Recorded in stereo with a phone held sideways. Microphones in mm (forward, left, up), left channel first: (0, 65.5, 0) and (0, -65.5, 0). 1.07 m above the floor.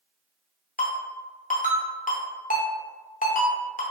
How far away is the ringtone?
About 0.5 m.